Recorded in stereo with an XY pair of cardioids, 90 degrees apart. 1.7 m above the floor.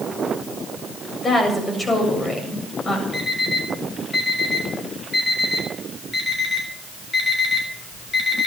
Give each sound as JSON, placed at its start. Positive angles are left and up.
{"t": 1.2, "sound": "a woman speaking", "azimuth_deg": 35, "distance_m": 7.5}
{"t": 3.1, "sound": "an alarm clock", "azimuth_deg": 35, "distance_m": 6.5}